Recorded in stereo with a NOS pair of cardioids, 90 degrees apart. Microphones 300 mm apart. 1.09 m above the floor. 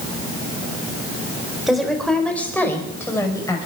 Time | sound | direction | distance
1.7 | a woman speaking | straight ahead | 4 m